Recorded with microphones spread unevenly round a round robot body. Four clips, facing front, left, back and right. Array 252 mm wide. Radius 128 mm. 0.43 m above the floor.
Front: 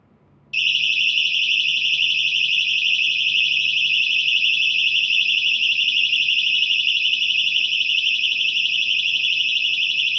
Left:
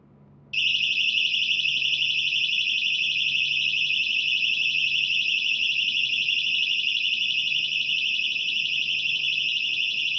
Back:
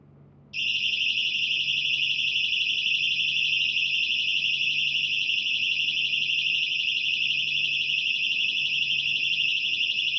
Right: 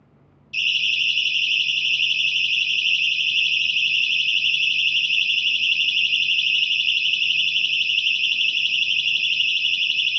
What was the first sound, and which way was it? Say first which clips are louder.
A siren: right 3 dB, front 8 dB; 75° left.